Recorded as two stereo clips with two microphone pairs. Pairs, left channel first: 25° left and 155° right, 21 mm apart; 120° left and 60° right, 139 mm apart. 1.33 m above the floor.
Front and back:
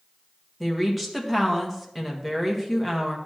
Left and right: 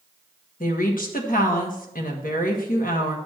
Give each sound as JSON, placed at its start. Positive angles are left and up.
{"t": 0.6, "sound": "a woman speaking", "azimuth_deg": 120, "distance_m": 1.5}